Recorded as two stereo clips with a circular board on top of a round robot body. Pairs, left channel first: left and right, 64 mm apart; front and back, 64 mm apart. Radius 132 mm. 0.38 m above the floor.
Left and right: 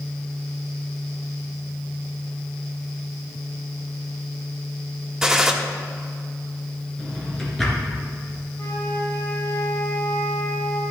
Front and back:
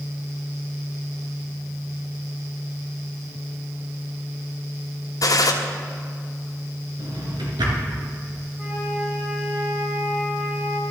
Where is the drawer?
175° left, 3 m.